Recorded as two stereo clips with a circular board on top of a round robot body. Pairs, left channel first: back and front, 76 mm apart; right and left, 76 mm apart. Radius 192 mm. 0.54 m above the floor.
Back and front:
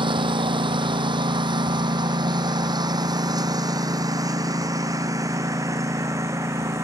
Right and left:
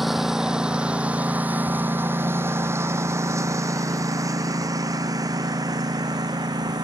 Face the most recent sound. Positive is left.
turn(degrees=55)